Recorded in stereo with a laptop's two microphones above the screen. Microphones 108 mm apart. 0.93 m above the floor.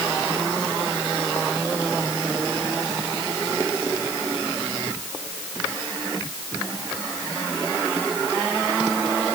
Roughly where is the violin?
No violin in this recording.